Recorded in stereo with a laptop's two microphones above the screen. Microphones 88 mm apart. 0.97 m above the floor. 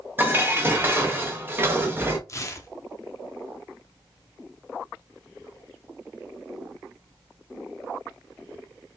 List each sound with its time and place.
0.2 s dishes clattering: 25° right (ahead or behind), 0.6 m
2.3 s tearing paper: 35° left (ahead or behind), 0.5 m